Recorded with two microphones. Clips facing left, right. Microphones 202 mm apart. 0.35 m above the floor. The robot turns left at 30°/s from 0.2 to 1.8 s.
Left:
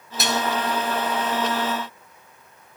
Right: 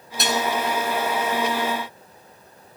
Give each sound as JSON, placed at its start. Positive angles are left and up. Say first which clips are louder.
{"t": 0.2, "sound": "dishes clattering", "louder": "right 1 dB", "side_deg": 0, "distance_m": 1.4}